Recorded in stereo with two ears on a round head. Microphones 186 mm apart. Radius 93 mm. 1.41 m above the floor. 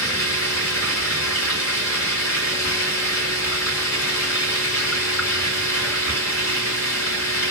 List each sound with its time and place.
0.0 s running water: 75° left (ahead or behind), 3 m